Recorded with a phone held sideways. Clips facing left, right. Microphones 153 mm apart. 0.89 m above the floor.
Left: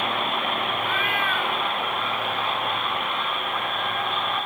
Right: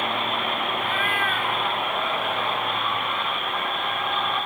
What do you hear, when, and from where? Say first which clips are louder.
0.8 s a cat meowing: even; 50° right (ahead or behind), 1.5 m